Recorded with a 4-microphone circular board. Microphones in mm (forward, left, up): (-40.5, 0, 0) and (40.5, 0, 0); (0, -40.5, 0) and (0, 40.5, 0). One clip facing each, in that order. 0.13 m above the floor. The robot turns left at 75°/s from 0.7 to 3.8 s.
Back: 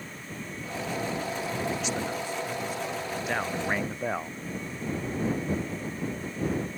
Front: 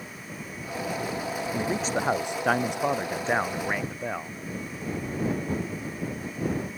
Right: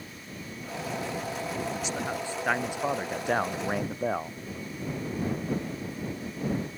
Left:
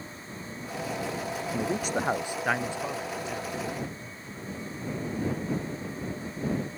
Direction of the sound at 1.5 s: 75° left.